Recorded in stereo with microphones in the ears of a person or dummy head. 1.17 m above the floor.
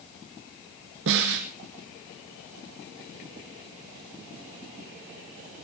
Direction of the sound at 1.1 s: 65° right (ahead or behind).